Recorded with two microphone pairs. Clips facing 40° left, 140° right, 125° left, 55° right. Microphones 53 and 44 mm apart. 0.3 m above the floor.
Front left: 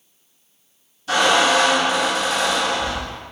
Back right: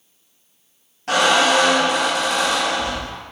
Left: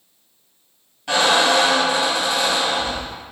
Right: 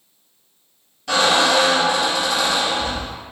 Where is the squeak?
165° right, 1.8 m.